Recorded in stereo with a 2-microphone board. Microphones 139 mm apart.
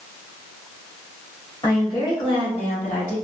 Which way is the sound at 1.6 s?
30° left (ahead or behind).